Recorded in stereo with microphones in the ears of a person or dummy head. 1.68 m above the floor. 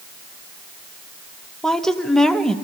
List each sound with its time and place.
1.6 s a woman speaking: 5° left (ahead or behind), 0.9 m